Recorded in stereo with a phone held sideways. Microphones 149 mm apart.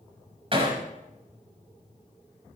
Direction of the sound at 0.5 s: 40° right (ahead or behind).